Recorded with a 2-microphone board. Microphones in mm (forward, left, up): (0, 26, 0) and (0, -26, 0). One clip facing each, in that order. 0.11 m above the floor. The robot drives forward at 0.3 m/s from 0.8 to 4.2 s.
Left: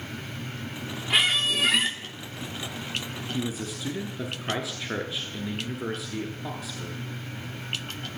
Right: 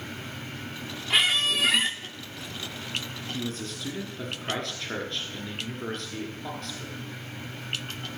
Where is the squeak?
Centre (ahead or behind), 1.1 m.